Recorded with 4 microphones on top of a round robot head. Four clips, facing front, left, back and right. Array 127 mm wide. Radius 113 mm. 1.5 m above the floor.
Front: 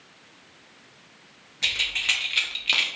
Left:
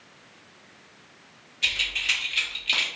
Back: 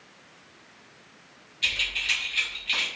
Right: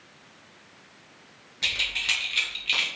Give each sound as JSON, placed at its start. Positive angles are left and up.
{"t": 1.6, "sound": "keys jangling", "azimuth_deg": -45, "distance_m": 0.8}